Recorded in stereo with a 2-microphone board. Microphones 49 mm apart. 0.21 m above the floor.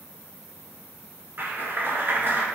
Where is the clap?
45° right (ahead or behind), 1.8 m.